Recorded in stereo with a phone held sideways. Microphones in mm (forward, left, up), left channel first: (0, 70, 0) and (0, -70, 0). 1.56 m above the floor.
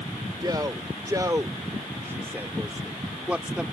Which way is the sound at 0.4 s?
25° right (ahead or behind).